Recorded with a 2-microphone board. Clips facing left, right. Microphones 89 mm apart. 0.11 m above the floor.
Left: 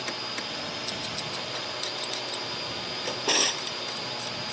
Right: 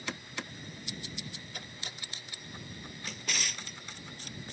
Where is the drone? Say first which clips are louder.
Left 6 dB; 80° left.